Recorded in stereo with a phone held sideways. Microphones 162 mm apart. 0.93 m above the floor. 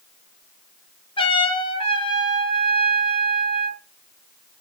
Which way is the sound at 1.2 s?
35° left (ahead or behind).